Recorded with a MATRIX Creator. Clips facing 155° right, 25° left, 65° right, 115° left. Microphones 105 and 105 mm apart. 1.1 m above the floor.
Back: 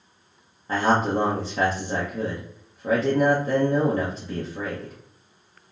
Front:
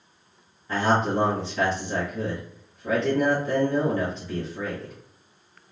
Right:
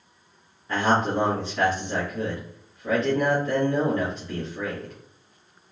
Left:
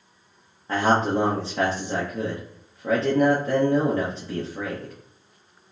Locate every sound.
0.7 s a man speaking: 160° left, 0.9 m